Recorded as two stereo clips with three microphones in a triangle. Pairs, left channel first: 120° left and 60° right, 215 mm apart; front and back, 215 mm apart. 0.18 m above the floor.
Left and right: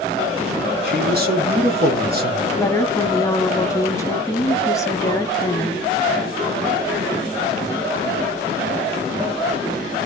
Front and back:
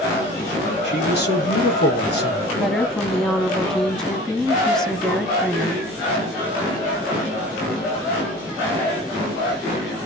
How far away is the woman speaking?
About 1.0 m.